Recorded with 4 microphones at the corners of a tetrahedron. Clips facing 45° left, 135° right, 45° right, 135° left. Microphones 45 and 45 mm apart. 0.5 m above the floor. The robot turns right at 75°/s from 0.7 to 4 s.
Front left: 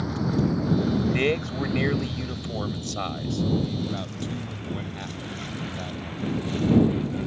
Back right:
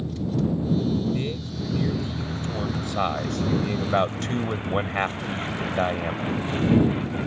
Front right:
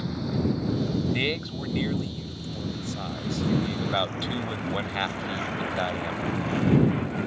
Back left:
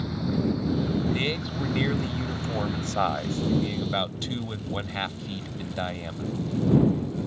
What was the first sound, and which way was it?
A vehicle, 45° left.